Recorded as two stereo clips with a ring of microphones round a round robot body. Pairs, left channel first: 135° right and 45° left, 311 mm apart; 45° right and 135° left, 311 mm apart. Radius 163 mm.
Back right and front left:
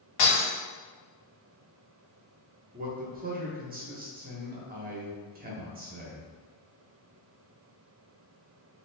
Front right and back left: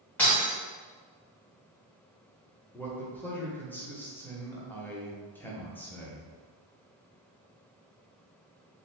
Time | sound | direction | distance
0.2 | breaking glass | 130° right | 1.8 m
2.7 | a man speaking | 30° left | 0.8 m